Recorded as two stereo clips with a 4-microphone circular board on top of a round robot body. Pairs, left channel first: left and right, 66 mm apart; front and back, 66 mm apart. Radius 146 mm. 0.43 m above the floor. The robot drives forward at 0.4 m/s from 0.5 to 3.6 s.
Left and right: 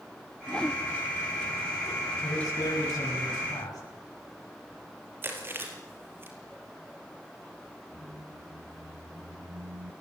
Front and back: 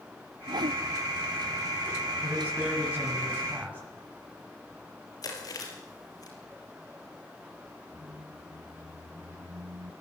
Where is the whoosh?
170° left, 0.6 m.